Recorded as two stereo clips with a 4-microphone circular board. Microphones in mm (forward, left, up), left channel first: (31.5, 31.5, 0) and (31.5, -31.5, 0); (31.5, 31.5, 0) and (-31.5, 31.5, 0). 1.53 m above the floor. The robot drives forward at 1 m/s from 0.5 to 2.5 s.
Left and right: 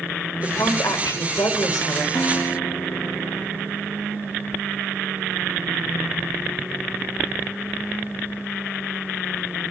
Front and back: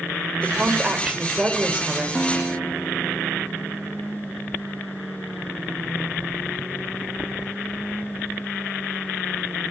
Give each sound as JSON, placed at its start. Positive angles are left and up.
{"t": 0.4, "sound": "a woman speaking", "azimuth_deg": 95, "distance_m": 6.0}
{"t": 2.1, "sound": "a guitar", "azimuth_deg": 65, "distance_m": 1.5}